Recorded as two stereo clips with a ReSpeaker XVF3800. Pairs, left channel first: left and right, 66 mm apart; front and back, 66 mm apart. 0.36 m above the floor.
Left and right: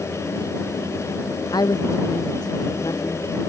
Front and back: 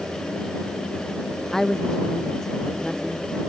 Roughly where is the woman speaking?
Left.